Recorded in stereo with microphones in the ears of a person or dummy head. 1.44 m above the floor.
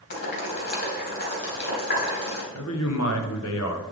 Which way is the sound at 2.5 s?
75° left (ahead or behind).